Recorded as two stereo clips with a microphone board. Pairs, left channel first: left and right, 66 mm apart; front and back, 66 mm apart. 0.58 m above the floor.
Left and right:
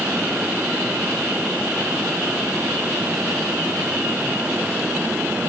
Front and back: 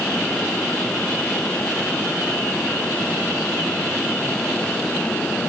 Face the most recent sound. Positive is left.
No sound to turn to.